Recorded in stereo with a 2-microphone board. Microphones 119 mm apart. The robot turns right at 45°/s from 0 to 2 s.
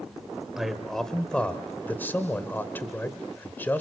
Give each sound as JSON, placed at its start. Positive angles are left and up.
{"t": 0.6, "sound": "a man speaking", "side_deg": -5, "distance_m": 1.5}